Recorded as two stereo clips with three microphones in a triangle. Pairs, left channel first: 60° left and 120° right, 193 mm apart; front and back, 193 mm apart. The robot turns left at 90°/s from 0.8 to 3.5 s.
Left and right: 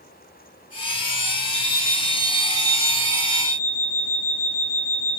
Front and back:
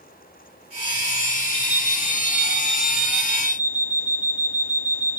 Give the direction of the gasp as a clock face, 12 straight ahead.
No gasp in this recording.